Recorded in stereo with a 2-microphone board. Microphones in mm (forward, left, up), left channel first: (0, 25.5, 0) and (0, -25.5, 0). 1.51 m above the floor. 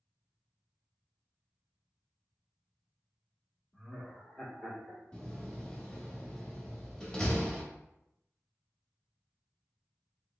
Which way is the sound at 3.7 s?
25° left (ahead or behind).